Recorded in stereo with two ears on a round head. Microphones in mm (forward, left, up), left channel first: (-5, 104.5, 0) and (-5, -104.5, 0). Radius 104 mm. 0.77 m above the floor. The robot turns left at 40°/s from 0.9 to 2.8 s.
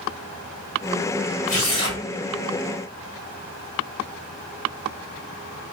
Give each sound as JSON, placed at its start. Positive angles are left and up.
{"t": 1.5, "sound": "tearing paper", "side_deg": 40, "distance_m": 1.8}